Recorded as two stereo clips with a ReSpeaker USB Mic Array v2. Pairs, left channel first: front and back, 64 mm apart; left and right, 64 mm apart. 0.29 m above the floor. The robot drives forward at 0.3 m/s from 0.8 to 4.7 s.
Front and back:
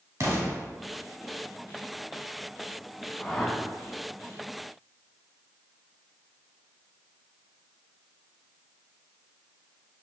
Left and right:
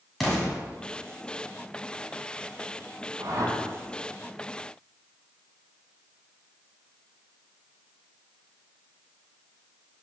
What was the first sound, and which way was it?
An explosion, 175° left.